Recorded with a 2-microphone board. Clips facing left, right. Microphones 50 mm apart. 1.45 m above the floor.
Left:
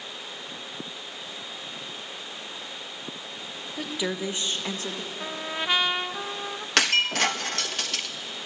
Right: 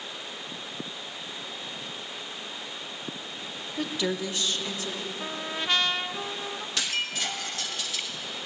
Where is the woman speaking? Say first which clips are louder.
Right 1 dB; centre (ahead or behind), 1.9 m; by 5.1 s 45° left (ahead or behind), 3 m.